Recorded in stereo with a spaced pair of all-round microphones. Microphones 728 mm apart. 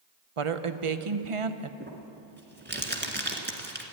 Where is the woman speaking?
45° right (ahead or behind), 0.8 m.